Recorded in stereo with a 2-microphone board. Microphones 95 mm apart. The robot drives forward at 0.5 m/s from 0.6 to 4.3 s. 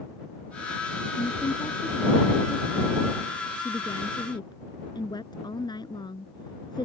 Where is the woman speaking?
60° left (ahead or behind); by 6.8 s 50° left (ahead or behind).